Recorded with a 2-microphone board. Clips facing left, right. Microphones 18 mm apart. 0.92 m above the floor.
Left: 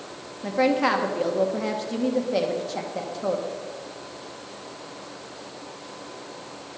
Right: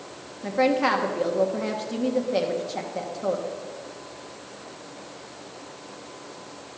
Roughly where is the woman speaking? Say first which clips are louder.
Even; centre.